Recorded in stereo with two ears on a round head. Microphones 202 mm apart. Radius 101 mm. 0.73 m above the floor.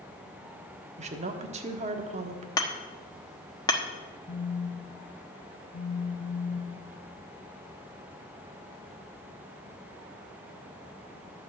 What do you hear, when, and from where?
1.0 s a woman speaking: 30° right (ahead or behind), 1.3 m
2.6 s hammering: 15° left (ahead or behind), 1.1 m
4.3 s a phone buzzing: 60° left (ahead or behind), 1.4 m